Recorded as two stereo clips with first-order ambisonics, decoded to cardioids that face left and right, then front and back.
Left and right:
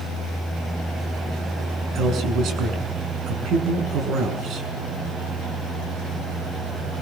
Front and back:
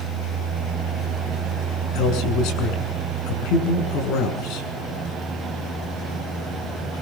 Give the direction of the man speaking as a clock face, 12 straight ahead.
1 o'clock.